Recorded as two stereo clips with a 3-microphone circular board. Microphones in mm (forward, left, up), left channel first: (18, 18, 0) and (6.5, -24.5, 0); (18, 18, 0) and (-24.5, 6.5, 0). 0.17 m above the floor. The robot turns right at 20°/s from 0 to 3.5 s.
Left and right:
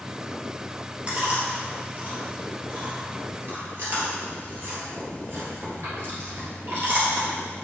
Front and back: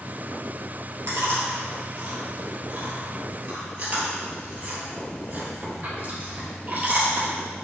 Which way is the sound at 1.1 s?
170° right.